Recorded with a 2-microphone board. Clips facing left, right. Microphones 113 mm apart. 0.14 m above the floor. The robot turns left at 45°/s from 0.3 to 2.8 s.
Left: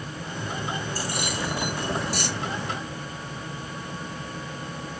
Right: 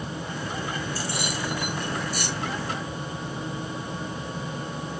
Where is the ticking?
I don't hear ticking.